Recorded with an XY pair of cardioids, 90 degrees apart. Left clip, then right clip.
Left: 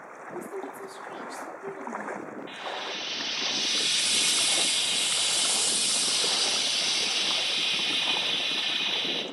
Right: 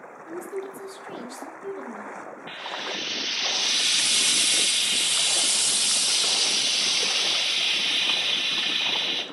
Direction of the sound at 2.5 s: 55° right.